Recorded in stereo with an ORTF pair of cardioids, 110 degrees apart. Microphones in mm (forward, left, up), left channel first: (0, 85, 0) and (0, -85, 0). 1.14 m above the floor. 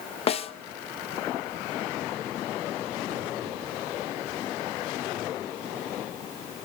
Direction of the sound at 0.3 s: 35° left.